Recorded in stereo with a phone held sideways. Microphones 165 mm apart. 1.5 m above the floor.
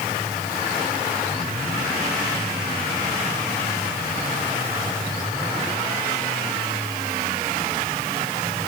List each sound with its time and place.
Only background noise.